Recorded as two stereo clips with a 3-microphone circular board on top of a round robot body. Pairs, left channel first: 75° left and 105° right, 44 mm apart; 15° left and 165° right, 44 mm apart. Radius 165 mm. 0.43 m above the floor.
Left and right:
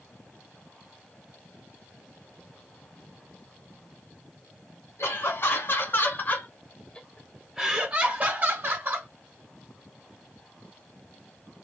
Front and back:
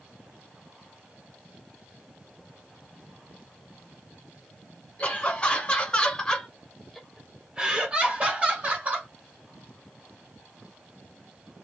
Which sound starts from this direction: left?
Laughter, at 5.0 s.